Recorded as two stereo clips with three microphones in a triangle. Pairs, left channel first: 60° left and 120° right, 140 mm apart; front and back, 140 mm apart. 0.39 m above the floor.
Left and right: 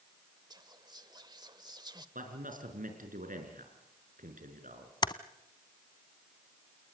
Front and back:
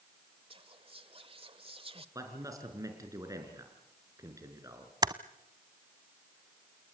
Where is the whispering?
160° right, 1.2 m.